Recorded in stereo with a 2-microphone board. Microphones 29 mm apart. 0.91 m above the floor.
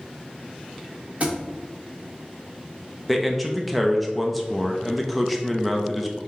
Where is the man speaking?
Centre (ahead or behind), 0.5 m.